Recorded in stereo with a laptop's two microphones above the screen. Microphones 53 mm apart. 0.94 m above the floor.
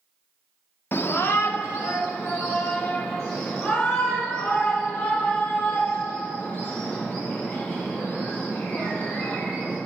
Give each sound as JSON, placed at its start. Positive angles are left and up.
{"t": 0.9, "sound": "a shout", "side_deg": 45, "distance_m": 0.6}